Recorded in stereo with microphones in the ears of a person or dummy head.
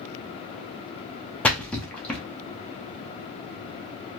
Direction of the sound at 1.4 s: 10° left (ahead or behind).